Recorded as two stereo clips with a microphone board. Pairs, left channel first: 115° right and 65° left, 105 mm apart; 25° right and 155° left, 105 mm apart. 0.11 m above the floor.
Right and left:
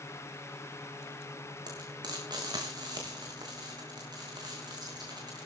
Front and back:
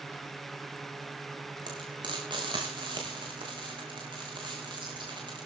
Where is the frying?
115° left, 6 m.